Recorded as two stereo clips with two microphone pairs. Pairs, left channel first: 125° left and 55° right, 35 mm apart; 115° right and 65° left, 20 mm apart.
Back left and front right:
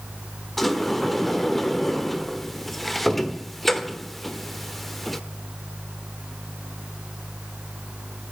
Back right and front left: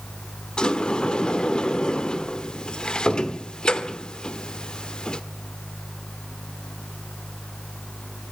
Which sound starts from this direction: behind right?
A sliding door, at 0.6 s.